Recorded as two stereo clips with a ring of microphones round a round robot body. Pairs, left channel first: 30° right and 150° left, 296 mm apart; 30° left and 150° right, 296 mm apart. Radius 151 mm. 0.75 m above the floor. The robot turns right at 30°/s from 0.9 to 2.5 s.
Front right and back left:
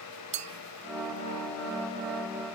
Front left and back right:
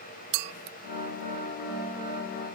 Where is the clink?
140° right, 0.5 m.